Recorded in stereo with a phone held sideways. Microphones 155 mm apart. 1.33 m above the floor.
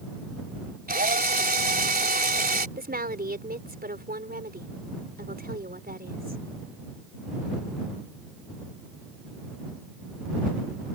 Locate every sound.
0.9 s a drill: 75° right (ahead or behind)
2.8 s a woman speaking: 85° right